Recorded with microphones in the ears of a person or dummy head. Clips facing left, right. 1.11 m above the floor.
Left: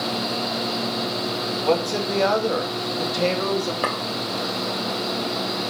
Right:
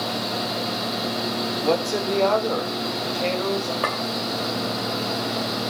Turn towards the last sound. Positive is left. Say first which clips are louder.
# left 1 dB
turn(degrees=15)  # may be behind; listen again after turning